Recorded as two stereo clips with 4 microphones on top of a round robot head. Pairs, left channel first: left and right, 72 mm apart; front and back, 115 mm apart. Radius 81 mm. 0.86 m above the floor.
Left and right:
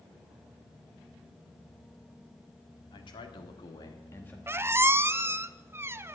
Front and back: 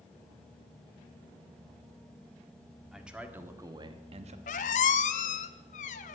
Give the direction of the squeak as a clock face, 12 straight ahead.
1 o'clock.